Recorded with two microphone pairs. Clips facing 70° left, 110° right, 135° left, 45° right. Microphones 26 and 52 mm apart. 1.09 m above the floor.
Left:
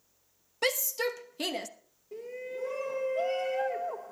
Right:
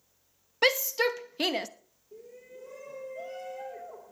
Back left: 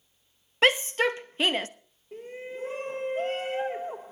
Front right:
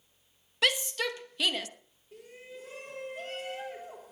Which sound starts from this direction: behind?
A shout, at 0.6 s.